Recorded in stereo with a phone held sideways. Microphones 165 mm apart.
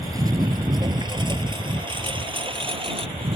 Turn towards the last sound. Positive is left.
turn(degrees=-35)  # may be behind; listen again after turning